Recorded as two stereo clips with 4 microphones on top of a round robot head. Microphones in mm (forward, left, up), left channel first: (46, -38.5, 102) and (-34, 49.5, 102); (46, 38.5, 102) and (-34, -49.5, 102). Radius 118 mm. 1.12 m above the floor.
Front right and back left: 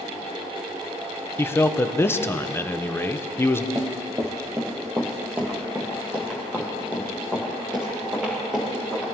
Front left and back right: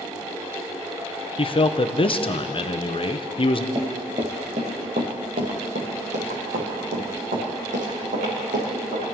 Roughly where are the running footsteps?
Behind.